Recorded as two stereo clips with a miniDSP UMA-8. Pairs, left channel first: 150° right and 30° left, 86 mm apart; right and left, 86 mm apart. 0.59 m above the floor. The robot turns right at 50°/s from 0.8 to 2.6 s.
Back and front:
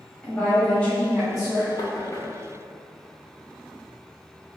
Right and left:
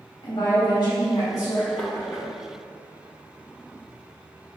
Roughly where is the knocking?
Behind.